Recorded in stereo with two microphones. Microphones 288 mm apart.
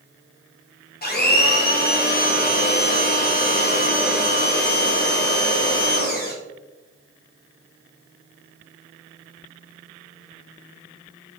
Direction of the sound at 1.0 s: 35° left (ahead or behind).